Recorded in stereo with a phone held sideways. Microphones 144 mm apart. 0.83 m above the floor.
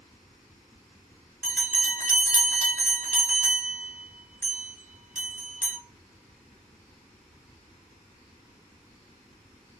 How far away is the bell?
About 1.5 m.